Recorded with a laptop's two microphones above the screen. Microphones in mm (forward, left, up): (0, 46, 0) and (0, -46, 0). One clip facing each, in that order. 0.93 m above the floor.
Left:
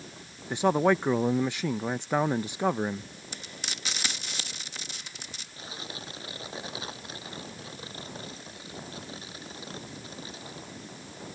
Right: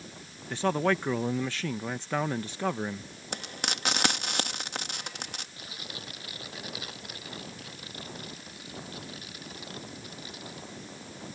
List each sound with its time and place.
0.5 s a man speaking: 15° left (ahead or behind)
3.3 s frying: 60° right (ahead or behind)
5.6 s tearing paper: 30° left (ahead or behind)